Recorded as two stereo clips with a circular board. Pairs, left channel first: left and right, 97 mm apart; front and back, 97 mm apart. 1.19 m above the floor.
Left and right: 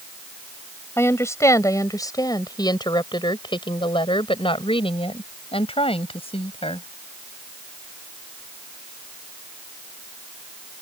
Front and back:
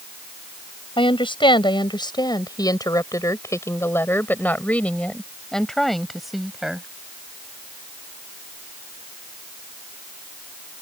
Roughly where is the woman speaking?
Ahead left.